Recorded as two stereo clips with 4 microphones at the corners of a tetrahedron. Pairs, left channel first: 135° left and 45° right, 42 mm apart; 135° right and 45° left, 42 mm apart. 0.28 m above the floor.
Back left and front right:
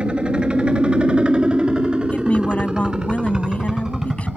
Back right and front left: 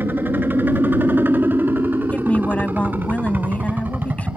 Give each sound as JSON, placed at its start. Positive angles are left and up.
{"t": 0.0, "sound": "a helicopter", "azimuth_deg": 20}
{"t": 2.1, "sound": "a woman speaking", "azimuth_deg": -175}